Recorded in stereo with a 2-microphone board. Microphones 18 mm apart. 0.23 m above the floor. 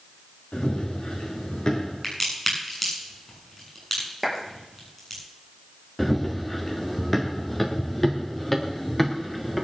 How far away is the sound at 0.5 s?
About 7 m.